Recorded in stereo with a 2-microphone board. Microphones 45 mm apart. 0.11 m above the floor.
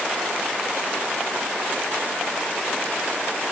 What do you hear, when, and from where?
Only background noise.